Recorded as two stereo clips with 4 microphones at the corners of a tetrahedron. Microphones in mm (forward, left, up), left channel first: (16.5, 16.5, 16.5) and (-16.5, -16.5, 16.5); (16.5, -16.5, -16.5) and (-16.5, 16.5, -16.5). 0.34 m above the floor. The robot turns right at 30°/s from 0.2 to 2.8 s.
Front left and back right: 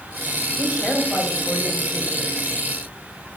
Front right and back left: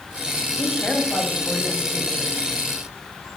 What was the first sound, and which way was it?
A woman speaking, 20° right.